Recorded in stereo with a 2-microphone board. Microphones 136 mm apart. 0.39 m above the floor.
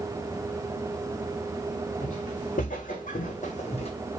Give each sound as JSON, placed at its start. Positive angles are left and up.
{"t": 2.0, "sound": "footsteps", "side_deg": 65, "distance_m": 1.7}